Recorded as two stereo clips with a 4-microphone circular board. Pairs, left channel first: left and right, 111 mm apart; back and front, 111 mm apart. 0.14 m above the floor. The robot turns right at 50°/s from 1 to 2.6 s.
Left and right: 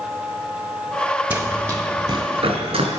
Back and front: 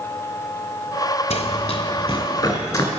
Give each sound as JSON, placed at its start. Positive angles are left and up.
{"t": 1.3, "sound": "running footsteps", "azimuth_deg": -165, "distance_m": 1.2}